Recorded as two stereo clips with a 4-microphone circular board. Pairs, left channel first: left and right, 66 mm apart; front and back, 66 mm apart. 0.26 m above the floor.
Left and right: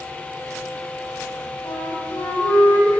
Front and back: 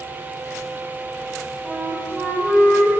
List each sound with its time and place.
1.6 s a flute: 120° left, 3.5 m